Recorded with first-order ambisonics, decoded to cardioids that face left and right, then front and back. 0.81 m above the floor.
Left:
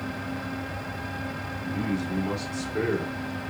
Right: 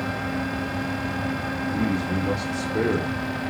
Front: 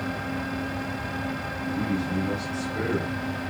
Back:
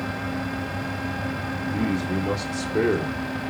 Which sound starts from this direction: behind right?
A man speaking, at 1.6 s.